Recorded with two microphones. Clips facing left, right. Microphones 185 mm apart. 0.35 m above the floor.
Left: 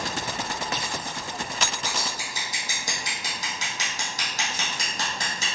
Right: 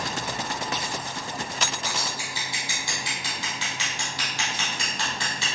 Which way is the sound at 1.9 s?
45° left (ahead or behind).